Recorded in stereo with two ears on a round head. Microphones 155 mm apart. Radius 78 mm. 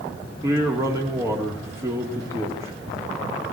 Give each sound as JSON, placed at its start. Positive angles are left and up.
{"t": 0.4, "sound": "a man speaking", "side_deg": -15, "distance_m": 2.0}